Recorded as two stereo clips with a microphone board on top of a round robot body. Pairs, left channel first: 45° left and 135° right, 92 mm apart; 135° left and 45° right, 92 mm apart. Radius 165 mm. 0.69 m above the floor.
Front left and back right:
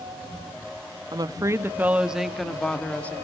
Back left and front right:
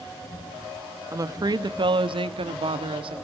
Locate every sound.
1.1 s a woman speaking: 100° right, 1.3 m; by 3.1 s 25° right, 2 m